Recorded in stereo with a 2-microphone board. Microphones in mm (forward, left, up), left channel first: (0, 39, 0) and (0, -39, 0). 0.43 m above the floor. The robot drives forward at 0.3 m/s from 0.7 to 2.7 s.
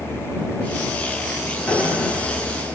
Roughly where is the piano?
Centre.